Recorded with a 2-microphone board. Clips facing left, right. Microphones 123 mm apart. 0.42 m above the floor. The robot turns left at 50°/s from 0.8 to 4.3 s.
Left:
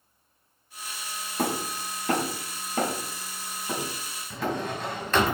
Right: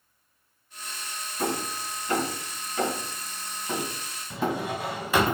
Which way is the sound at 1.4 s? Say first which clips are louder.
Left 1 dB; 60° left (ahead or behind).